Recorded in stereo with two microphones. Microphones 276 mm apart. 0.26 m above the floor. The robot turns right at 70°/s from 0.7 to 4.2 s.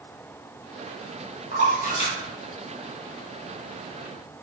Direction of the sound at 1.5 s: 40° left (ahead or behind).